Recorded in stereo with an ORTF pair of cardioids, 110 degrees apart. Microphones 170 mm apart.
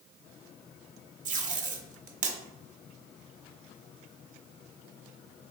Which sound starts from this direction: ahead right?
Tape being pulled, at 1.2 s.